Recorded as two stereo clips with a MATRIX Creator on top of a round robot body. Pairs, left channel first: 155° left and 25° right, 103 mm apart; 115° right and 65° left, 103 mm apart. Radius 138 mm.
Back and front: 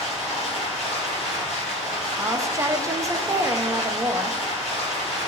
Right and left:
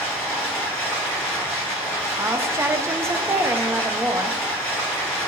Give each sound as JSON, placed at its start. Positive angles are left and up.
{"t": 0.0, "sound": "running water", "azimuth_deg": 165, "distance_m": 0.8}
{"t": 2.2, "sound": "a woman speaking", "azimuth_deg": 20, "distance_m": 0.5}